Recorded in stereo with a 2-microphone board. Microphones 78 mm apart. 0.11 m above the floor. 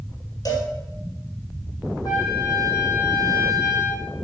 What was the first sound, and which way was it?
A cowbell, 50° left (ahead or behind).